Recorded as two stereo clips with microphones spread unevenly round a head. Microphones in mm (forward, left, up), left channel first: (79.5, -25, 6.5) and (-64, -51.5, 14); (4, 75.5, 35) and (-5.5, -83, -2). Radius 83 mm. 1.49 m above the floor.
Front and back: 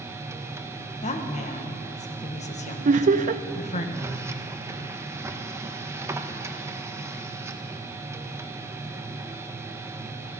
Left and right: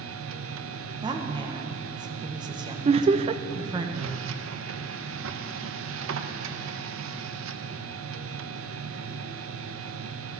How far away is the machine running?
About 1.1 m.